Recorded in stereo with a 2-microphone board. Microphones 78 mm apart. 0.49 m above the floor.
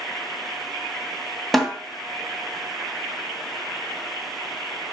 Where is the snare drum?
Centre (ahead or behind), 2.5 m.